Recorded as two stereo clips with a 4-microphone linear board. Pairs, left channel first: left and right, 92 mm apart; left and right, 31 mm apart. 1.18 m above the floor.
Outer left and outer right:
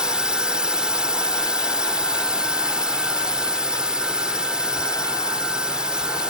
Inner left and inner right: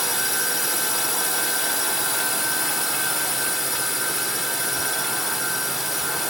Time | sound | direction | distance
0.0 | a drone | 10° right (ahead or behind) | ?